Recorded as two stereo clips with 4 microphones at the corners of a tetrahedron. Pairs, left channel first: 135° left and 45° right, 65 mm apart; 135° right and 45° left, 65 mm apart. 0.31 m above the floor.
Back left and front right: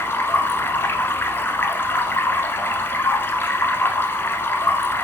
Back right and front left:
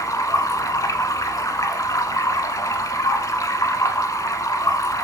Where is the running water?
170° right, 0.8 m.